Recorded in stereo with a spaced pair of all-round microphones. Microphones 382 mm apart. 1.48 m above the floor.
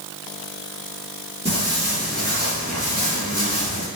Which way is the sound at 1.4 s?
15° right (ahead or behind).